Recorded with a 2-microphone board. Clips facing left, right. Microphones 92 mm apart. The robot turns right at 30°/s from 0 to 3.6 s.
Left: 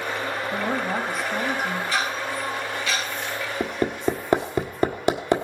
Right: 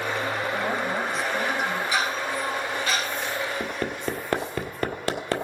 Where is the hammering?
20° left (ahead or behind), 1.3 m.